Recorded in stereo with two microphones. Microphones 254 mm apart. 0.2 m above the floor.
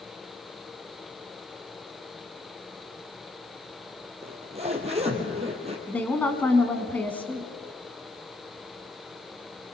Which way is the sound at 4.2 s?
25° right (ahead or behind).